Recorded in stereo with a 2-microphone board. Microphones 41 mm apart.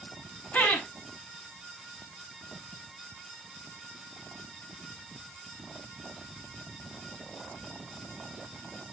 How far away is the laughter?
About 1.6 m.